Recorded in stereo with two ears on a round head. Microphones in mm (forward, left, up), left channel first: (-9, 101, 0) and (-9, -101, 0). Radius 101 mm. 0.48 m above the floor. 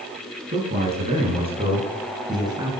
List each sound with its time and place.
0.5 s a man speaking: 30° right (ahead or behind), 7 m; by 2.7 s 15° right (ahead or behind), 5.5 m